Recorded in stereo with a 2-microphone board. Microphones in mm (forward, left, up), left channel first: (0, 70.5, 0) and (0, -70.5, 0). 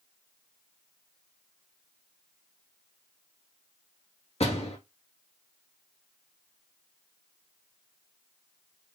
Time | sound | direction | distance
4.4 | a door slam | 50° left (ahead or behind) | 1.6 m